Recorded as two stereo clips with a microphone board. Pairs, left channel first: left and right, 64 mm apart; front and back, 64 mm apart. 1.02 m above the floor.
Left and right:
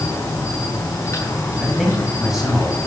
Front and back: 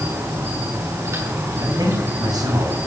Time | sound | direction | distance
0.0 | an insect | 140° left | 7 m
1.6 | a man speaking | 175° right | 7 m